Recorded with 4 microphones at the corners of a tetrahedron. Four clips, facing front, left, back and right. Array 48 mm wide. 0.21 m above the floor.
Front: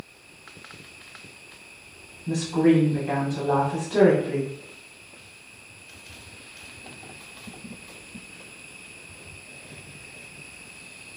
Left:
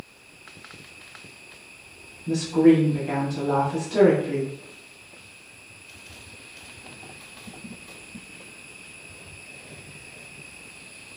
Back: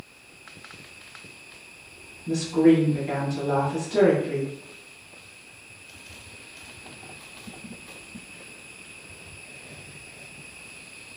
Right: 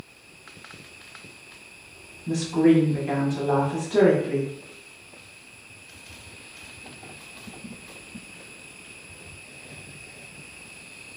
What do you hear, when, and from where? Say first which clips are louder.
2.3 s a woman speaking: left 2 dB, back 2 dB; 40° right, 1.0 m